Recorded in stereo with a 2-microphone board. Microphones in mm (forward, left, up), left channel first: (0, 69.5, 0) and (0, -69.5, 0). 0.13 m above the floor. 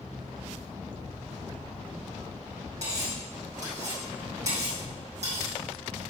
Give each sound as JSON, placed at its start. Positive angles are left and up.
{"t": 2.8, "sound": "cutlery clinking", "side_deg": -60, "distance_m": 3.5}